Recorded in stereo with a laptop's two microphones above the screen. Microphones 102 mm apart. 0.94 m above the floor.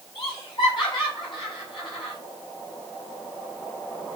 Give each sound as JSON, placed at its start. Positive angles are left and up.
{"t": 0.1, "sound": "laughter", "side_deg": 50, "distance_m": 7.0}